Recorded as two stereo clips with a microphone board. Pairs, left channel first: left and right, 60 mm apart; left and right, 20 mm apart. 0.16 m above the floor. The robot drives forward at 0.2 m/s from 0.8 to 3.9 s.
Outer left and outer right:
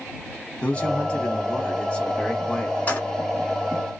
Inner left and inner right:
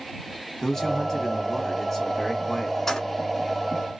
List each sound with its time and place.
0.6 s a man speaking: 20° left (ahead or behind), 1.1 m
2.9 s keys jangling: 25° left (ahead or behind), 1.0 m